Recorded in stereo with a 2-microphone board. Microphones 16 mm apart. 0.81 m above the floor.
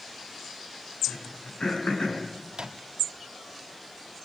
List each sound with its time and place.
1.1 s throat clearing: 90° left, 6 m
2.5 s a microwave: 70° right (ahead or behind), 0.9 m